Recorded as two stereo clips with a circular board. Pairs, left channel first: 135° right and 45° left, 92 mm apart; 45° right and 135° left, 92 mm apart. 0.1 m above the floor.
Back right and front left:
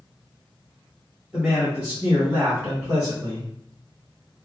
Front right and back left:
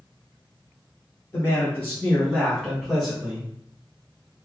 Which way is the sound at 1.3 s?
30° right.